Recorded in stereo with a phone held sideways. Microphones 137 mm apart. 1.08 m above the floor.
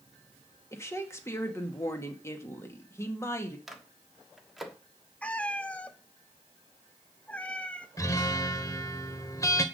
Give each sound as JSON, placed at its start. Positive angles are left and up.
{"t": 0.7, "sound": "a woman speaking", "side_deg": 20, "distance_m": 2.0}
{"t": 3.7, "sound": "a microwave", "side_deg": 0, "distance_m": 1.4}
{"t": 5.2, "sound": "a cat meowing", "side_deg": 10, "distance_m": 0.8}
{"t": 8.0, "sound": "a guitar", "side_deg": 25, "distance_m": 1.1}